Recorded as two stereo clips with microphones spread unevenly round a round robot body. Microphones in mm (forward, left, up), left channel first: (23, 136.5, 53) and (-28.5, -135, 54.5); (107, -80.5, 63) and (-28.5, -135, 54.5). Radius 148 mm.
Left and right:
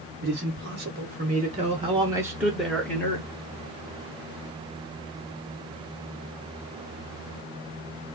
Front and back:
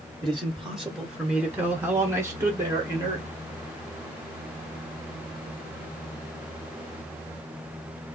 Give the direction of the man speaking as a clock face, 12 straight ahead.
2 o'clock.